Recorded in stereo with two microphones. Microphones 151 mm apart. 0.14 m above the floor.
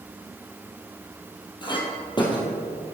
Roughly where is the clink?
Left.